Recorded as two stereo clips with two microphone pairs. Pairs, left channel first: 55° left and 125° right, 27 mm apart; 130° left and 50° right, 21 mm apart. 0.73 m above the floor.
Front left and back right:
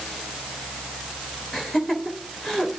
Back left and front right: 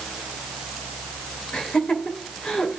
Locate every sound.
1.5 s laughter: 130° left, 3 m